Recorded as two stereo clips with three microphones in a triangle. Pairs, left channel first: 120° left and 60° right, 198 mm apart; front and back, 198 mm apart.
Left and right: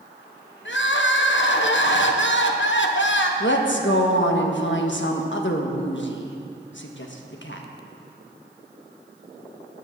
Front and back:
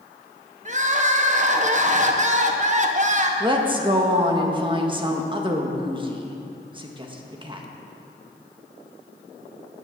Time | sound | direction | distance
0.7 | crying | 130° left | 0.9 m
3.4 | a woman speaking | 115° left | 1.3 m